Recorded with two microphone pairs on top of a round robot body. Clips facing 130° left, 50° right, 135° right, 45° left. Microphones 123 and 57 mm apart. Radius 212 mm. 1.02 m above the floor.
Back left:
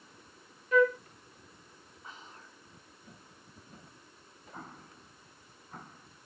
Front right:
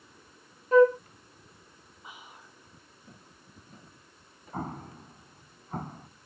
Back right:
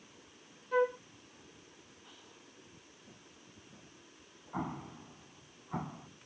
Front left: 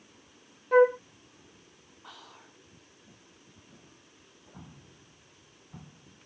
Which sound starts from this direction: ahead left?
Whispering, at 2.0 s.